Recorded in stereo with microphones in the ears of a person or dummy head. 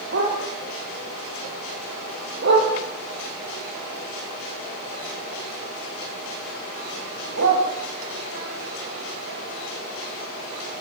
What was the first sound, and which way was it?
A dog barking, 60° right (ahead or behind).